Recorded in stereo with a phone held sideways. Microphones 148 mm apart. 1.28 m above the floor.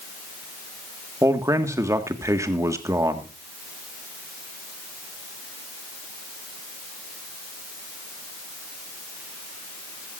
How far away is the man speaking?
About 1.8 m.